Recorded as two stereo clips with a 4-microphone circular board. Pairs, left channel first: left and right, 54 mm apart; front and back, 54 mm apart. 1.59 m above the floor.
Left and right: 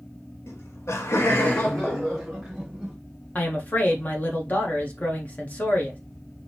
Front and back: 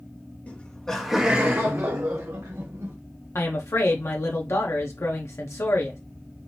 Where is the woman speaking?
30° left, 0.9 m.